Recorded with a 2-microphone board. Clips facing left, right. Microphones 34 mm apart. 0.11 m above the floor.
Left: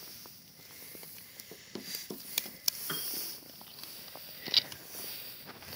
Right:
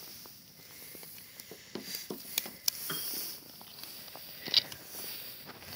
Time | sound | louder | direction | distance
1.5 | running footsteps | right 1 dB | 10° right (ahead or behind) | ?
2.9 | a piano | left 1 dB | 5° left (ahead or behind) | ?